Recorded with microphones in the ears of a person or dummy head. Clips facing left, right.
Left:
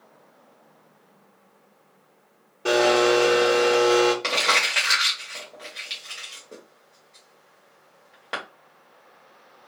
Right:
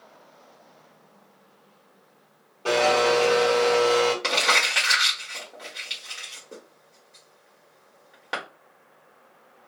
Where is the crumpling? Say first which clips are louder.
Even; 5° right (ahead or behind), 1.4 m.